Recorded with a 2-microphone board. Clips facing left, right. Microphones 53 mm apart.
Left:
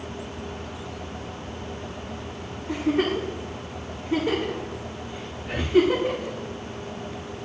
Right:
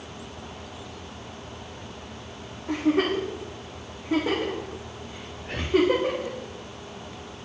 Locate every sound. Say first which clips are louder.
2.7 s a giggle: right 1 dB; 80° right, 7.5 m
5.4 s breathing: left 3 dB; 5° left (ahead or behind), 0.7 m